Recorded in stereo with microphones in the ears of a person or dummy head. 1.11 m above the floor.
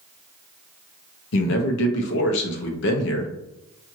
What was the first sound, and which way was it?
A man speaking, 65° left (ahead or behind).